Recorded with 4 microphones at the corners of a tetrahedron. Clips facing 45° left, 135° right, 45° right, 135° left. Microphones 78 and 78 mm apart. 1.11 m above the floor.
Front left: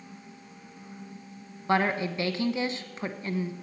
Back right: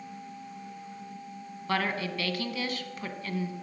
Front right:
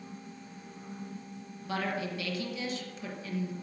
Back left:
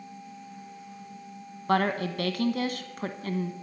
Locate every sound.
1.7 s a woman speaking: 110° left, 1.0 m